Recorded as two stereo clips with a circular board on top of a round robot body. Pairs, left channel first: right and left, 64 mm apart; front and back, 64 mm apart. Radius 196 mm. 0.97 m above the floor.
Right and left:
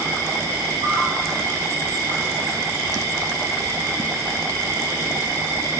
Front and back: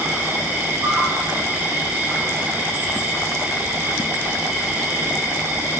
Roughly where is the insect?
Behind left.